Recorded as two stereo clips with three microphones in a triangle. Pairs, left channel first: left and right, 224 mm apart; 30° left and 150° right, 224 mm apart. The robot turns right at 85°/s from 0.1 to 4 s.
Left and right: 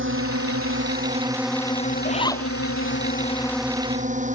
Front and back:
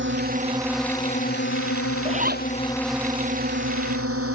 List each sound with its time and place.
0.0 s a drone: 120° right; by 4.3 s 145° right
2.0 s a zipper: 145° left; by 2.5 s straight behind